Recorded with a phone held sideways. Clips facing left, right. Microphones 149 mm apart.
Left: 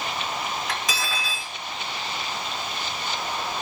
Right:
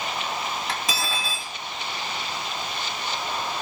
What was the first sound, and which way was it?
Cutlery clinking, 30° right (ahead or behind).